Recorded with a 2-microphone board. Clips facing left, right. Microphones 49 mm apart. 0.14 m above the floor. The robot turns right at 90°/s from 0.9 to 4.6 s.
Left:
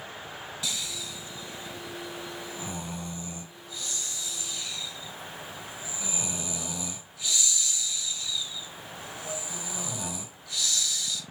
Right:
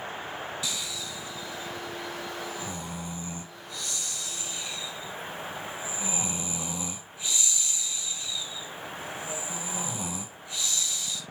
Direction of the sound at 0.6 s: Centre (ahead or behind).